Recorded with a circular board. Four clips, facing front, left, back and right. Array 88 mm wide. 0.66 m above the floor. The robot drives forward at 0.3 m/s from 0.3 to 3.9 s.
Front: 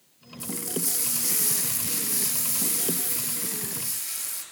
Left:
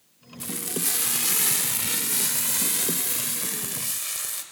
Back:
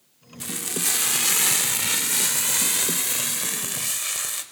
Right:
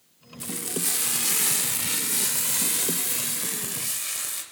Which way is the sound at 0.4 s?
175° left.